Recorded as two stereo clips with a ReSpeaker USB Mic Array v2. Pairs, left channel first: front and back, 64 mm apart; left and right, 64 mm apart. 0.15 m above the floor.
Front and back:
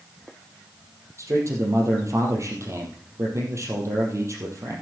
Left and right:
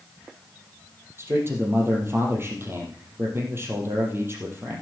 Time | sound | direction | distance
1.2 | a man speaking | 140° right | 4 m